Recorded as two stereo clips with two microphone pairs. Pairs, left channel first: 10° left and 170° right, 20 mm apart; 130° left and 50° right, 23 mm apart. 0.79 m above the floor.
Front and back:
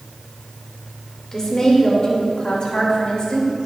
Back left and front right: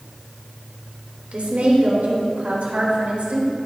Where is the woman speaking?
50° right, 3 m; by 3.5 s 25° right, 4 m.